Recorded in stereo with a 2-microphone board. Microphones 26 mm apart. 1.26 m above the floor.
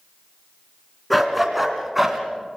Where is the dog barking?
Centre (ahead or behind), 3 m; by 2.2 s 10° right (ahead or behind), 2.5 m.